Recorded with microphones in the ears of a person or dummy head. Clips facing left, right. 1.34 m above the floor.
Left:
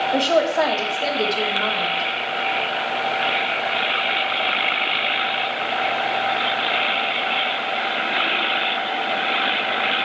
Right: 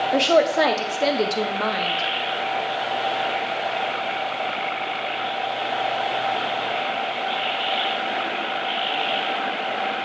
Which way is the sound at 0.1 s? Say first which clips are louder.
Right 1 dB; 25° right (ahead or behind).